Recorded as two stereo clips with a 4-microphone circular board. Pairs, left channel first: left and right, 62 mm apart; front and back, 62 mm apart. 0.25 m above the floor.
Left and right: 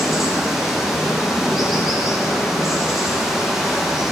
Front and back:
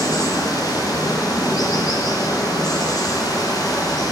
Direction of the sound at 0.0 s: Straight ahead.